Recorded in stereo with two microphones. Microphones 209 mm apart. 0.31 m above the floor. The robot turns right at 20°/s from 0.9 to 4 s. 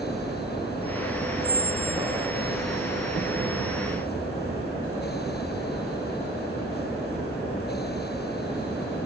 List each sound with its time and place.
1.4 s a squeak: 30° right (ahead or behind), 0.8 m; by 2.3 s 20° right (ahead or behind), 0.8 m